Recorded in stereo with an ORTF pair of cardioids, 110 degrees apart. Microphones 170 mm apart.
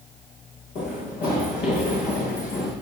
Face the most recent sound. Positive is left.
turn(degrees=65)